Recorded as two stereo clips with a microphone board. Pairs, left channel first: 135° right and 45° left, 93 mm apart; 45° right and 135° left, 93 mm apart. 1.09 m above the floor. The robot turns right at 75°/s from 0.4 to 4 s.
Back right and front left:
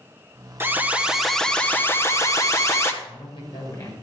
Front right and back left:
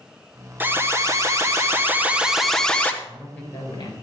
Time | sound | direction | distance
0.6 | an alarm | 85° left | 1.2 m
3.0 | a man speaking | 140° right | 4.5 m